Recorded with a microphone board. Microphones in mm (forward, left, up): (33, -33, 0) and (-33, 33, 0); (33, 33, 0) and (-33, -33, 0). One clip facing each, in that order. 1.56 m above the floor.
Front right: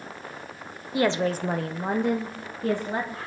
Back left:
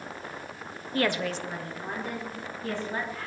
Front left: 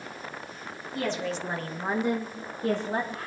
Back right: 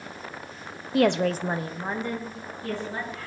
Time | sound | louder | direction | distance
0.9 | a woman speaking | front right 4 dB, back right 9 dB | 120° right | 0.9 m